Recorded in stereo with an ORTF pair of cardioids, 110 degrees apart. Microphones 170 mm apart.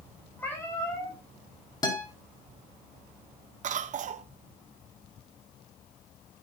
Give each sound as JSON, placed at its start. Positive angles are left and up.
{"t": 0.4, "sound": "a cat meowing", "azimuth_deg": 10, "distance_m": 7.5}
{"t": 1.8, "sound": "a guitar", "azimuth_deg": 25, "distance_m": 4.5}
{"t": 3.6, "sound": "a cough", "azimuth_deg": -50, "distance_m": 0.8}